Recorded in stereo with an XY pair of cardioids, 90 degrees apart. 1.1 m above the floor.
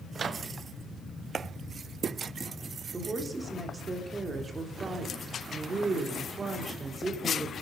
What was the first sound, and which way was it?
A microwave, 50° right.